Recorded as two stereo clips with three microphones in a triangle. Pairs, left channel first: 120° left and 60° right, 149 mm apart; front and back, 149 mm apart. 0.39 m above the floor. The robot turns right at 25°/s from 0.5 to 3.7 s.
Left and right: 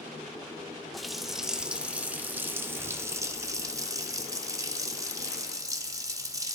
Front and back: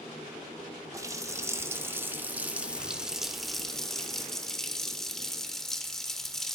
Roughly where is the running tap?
Behind right.